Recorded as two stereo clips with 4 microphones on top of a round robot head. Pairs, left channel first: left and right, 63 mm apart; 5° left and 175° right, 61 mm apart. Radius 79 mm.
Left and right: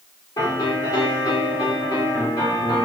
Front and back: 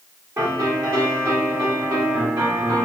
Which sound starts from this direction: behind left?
A piano, at 0.4 s.